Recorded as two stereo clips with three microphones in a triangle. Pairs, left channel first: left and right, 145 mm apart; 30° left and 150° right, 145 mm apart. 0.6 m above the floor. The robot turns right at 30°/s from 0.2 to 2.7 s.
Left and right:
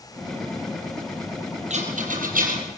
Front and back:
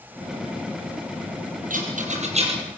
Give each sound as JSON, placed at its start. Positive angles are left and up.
{"t": 1.7, "sound": "a rattle", "azimuth_deg": -130, "distance_m": 5.0}